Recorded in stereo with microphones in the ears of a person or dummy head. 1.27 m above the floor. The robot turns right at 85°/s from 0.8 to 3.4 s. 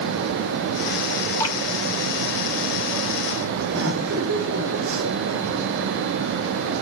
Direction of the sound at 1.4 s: 10° left (ahead or behind).